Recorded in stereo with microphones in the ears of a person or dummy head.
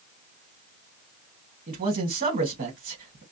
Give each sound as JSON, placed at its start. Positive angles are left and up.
{"t": 1.7, "sound": "a man speaking", "side_deg": -45, "distance_m": 1.5}